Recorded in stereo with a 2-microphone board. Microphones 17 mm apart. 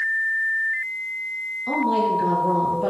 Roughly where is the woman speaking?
Centre.